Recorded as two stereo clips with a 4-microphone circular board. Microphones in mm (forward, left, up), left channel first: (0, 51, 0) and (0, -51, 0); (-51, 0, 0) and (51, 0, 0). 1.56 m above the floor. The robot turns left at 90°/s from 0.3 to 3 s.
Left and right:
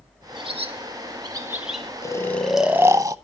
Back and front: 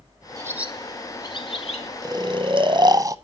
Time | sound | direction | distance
0.4 | a bird | 55° right | 1.5 m
2.0 | snoring | 45° left | 0.9 m